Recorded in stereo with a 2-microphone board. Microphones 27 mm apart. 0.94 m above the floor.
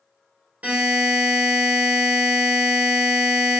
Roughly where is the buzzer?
Right.